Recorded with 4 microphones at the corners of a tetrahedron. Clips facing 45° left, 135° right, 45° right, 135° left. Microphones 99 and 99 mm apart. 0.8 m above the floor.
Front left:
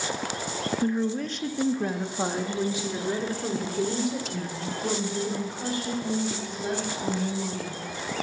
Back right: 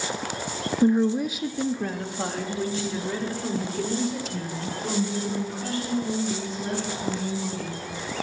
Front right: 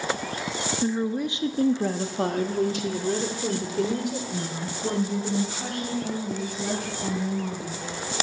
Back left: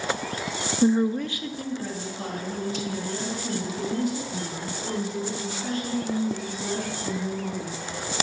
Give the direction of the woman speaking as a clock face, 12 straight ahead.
6 o'clock.